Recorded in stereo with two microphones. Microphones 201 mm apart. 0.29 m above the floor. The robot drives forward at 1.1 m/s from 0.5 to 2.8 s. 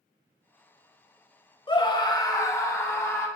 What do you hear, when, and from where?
1.7 s a scream: 25° left (ahead or behind), 0.9 m; by 3.3 s 15° left (ahead or behind), 1.6 m